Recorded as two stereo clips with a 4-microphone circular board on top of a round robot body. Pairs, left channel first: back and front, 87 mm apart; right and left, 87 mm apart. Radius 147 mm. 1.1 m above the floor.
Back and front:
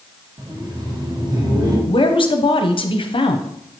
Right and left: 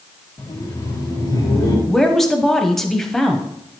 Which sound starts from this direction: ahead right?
Laughter, at 0.4 s.